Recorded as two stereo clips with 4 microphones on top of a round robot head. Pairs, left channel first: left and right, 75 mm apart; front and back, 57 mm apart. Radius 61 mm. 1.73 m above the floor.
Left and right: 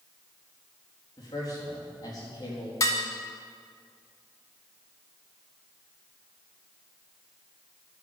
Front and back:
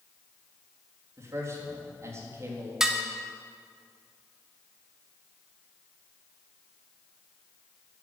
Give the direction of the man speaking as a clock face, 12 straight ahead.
7 o'clock.